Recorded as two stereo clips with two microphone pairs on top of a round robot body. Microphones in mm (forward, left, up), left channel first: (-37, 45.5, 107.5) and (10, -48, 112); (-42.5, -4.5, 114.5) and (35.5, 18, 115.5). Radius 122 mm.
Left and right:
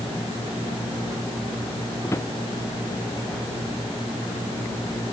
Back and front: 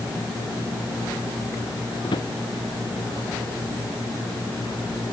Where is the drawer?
Straight behind.